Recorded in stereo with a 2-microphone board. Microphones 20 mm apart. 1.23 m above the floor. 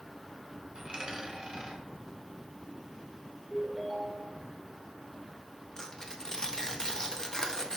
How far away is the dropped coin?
About 2 m.